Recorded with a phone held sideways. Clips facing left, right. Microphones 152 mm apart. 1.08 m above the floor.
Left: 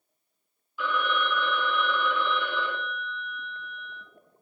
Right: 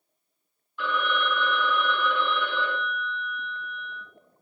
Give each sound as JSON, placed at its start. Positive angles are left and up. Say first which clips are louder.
{"t": 0.8, "sound": "a phone ringing", "louder": "even", "side_deg": 5, "distance_m": 1.0}